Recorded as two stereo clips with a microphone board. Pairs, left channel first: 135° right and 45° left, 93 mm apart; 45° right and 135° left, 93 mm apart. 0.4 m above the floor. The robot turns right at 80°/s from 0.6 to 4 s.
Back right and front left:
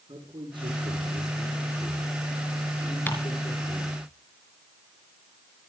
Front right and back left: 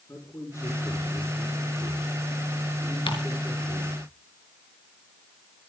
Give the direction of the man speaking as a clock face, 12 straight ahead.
11 o'clock.